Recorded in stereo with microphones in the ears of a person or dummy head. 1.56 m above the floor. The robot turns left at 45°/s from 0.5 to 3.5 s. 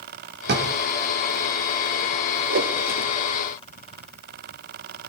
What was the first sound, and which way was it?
A drawer, 55° right (ahead or behind).